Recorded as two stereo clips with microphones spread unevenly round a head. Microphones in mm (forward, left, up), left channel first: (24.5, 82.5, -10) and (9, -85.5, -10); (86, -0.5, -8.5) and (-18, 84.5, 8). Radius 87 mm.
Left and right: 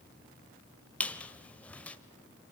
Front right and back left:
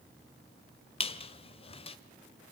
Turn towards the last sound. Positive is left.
turn(degrees=5)